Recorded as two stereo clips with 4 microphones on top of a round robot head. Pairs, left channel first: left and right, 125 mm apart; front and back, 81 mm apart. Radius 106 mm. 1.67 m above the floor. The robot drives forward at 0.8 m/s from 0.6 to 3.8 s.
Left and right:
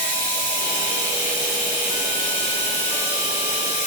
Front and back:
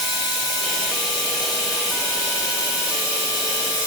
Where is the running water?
30° left, 6 m; by 3.9 s 50° left, 4 m.